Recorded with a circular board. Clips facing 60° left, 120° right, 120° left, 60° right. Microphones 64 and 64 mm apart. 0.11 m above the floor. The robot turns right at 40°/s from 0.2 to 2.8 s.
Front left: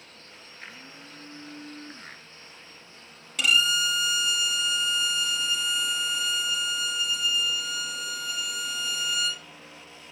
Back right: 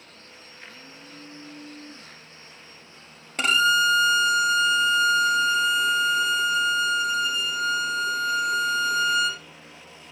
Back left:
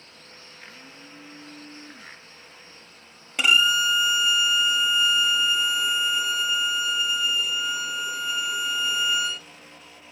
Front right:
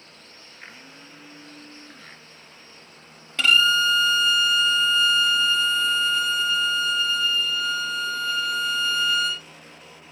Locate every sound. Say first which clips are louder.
0.6 s a blender: front left 1 dB, front right 2 dB; 5° right, 1.3 m; by 2.2 s 60° left, 1.3 m
3.4 s a violin: back right 5 dB, front right 1 dB; 165° right, 0.6 m